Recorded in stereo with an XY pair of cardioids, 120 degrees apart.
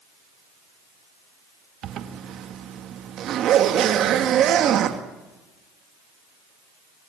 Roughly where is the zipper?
Ahead right.